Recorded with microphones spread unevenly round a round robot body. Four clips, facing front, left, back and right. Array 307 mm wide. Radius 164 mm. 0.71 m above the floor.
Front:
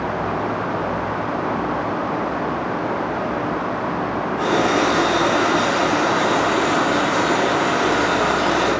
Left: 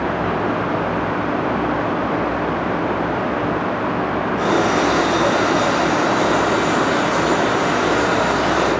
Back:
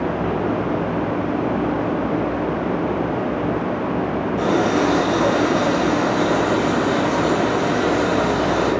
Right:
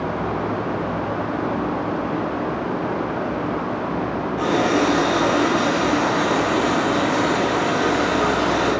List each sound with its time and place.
4.4 s a running tap: 170° left, 2.5 m